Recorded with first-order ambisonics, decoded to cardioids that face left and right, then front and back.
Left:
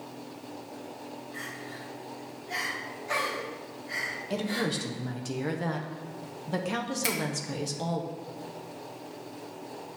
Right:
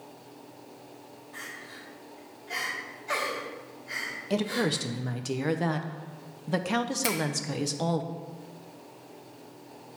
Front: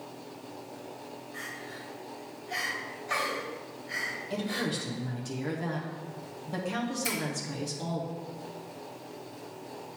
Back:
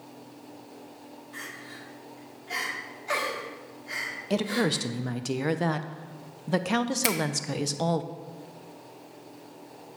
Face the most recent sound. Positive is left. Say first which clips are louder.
# left 2 dB, back 5 dB
turn(degrees=180)